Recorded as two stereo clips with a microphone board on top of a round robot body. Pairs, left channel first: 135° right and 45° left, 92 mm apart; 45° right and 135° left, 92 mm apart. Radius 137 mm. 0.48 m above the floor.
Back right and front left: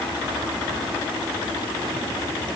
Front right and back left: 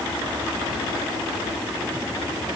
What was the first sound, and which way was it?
Only background noise.